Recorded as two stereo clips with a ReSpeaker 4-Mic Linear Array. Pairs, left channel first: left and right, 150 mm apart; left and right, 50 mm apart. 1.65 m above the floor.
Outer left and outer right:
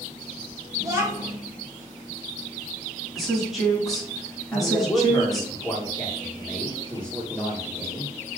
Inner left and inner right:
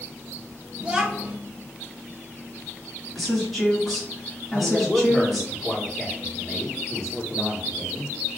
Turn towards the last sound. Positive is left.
turn(degrees=5)  # may be behind; listen again after turning